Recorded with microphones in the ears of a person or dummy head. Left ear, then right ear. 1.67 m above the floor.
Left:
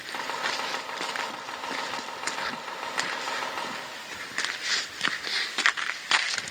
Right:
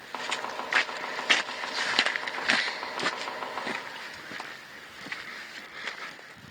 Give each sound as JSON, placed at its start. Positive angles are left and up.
{"t": 0.1, "sound": "chopping", "side_deg": -10, "distance_m": 0.5}